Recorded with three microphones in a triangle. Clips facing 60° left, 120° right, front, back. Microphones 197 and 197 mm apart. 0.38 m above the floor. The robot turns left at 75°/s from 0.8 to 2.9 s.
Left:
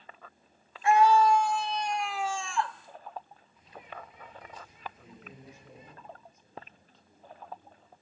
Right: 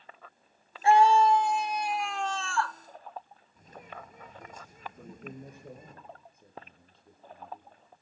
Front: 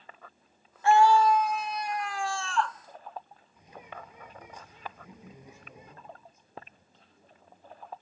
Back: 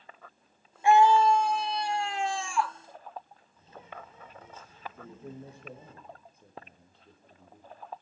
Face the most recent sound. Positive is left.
turn(degrees=-155)